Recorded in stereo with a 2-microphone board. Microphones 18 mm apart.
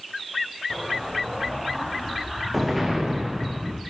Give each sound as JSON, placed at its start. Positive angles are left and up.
{"t": 0.7, "sound": "an explosion", "side_deg": -10, "distance_m": 7.0}